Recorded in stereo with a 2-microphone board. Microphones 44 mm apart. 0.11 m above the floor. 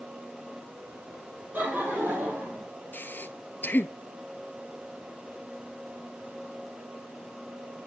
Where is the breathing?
45° left (ahead or behind), 0.5 m.